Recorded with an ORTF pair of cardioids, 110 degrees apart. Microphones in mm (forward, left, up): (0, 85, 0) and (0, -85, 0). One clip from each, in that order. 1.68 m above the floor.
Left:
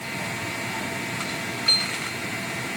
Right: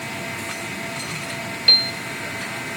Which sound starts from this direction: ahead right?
A piano, at 1.7 s.